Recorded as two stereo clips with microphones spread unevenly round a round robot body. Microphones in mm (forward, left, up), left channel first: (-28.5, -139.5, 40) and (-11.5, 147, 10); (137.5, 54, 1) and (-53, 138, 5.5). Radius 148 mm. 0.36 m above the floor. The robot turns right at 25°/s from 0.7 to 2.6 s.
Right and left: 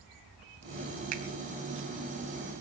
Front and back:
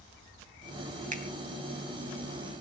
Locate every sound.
1.1 s a finger snap: 105° left, 2.0 m; by 1.2 s 110° left, 2.0 m